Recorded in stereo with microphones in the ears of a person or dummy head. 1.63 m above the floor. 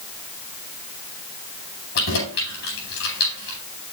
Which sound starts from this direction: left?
Keys jangling, at 1.9 s.